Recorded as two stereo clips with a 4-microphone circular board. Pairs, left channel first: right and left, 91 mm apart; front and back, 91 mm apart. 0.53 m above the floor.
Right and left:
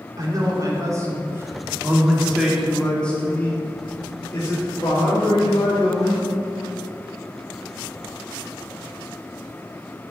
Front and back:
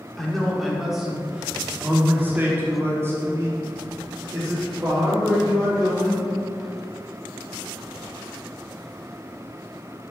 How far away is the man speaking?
About 1.6 m.